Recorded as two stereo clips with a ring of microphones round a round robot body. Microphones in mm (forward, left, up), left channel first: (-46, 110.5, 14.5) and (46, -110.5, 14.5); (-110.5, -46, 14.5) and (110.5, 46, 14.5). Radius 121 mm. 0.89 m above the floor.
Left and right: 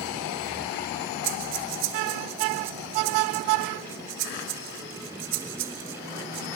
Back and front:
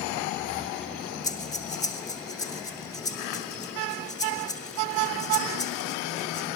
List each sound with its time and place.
1.2 s breathing: 85° right, 3 m